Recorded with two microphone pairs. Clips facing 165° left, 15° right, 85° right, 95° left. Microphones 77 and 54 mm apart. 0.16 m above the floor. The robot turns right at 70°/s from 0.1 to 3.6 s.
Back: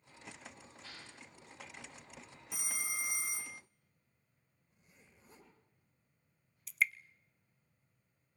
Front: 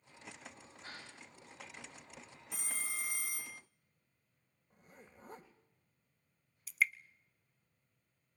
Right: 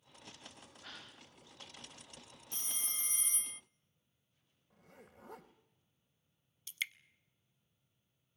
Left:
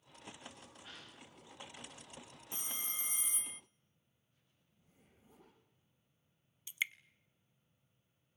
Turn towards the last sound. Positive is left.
turn(degrees=65)